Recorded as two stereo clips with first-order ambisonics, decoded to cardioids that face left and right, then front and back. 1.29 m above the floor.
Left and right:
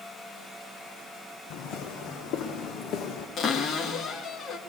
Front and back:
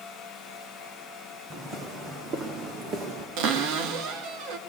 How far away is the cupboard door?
About 2.0 m.